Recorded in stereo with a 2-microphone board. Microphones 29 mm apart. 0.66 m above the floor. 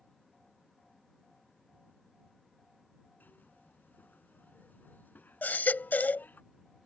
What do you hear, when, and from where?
3.2 s a zipper: 75° left (ahead or behind)
5.4 s a baby crying: 80° left